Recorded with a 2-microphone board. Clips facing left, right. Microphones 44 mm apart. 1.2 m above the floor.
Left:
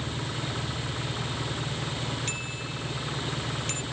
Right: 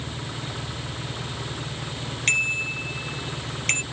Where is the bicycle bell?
55° right (ahead or behind).